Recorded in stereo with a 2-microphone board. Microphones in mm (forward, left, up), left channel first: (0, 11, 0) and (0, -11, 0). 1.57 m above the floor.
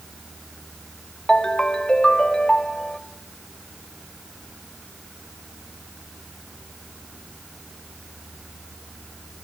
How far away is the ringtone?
About 1.3 m.